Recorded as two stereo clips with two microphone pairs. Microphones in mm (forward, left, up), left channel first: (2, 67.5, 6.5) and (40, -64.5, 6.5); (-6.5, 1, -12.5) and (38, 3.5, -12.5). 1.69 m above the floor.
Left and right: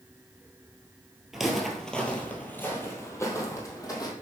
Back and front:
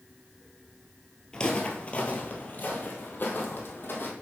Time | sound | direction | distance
1.3 | footsteps | 155° right | 1.7 m